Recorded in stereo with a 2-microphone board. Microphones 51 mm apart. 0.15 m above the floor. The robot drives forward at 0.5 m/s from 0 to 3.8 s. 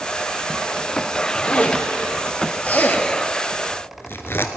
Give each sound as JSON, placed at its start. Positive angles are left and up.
{"t": 1.4, "sound": "a zipper", "side_deg": 20, "distance_m": 1.7}